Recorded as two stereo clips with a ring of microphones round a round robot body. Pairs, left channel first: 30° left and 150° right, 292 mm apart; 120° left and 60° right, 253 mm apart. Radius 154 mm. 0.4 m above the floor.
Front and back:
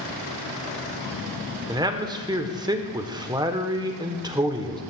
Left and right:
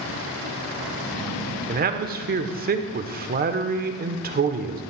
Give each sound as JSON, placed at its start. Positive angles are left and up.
{"t": 1.7, "sound": "a man speaking", "azimuth_deg": -80, "distance_m": 1.0}